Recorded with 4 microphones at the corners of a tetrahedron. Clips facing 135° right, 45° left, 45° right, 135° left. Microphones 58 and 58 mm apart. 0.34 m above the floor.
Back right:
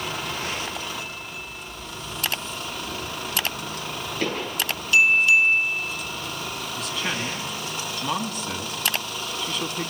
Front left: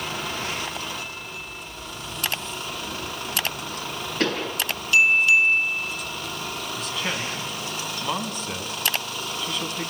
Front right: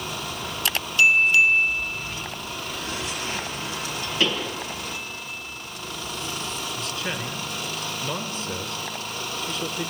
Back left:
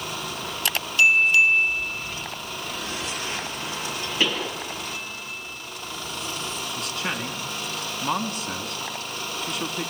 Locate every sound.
4.2 s a pop: 65° left, 8.5 m
6.8 s a man speaking: 135° left, 4 m